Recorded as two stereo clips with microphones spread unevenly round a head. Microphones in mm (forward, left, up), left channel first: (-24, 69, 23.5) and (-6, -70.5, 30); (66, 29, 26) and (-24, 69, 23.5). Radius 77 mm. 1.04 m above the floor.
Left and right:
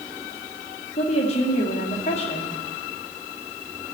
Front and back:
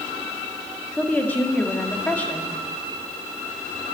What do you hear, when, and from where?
1.0 s a woman speaking: 50° left, 2 m